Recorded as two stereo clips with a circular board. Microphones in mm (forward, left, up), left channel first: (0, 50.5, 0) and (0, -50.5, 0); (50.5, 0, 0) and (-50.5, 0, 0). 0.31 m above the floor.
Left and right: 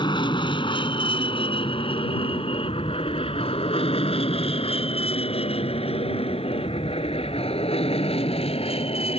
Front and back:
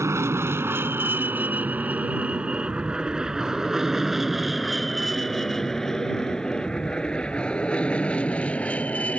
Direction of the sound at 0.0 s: 120° left.